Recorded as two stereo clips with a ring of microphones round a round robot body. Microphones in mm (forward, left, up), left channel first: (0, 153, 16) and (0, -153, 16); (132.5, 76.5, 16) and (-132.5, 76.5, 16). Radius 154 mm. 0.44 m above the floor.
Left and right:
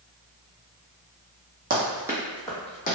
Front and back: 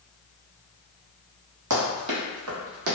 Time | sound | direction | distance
1.7 | running footsteps | 150° right | 0.9 m